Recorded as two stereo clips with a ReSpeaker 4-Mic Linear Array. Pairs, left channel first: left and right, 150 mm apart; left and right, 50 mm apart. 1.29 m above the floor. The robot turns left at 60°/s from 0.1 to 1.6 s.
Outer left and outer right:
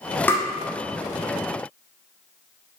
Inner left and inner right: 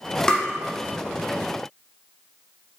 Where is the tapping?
15° left (ahead or behind), 0.7 m; by 0.5 s 25° left (ahead or behind), 0.7 m.